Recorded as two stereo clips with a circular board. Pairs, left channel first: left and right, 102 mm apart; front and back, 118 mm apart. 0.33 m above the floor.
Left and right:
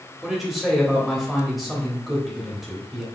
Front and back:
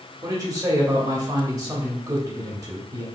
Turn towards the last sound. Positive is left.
turn(degrees=-175)